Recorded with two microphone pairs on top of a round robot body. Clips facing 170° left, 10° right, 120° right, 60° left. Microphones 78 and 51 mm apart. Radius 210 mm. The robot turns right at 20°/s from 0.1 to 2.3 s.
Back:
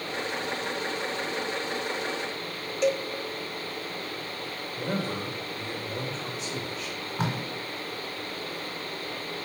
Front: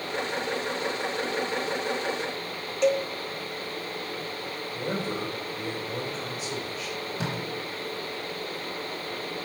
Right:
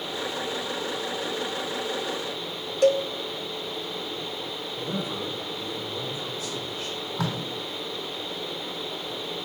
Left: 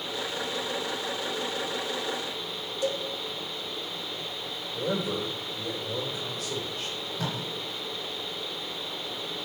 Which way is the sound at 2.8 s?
100° right.